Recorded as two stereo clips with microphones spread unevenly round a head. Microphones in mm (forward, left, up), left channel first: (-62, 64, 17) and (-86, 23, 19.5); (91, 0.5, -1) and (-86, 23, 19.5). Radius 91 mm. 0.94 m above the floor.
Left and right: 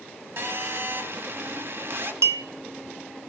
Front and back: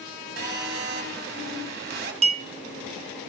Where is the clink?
130° right, 0.7 m.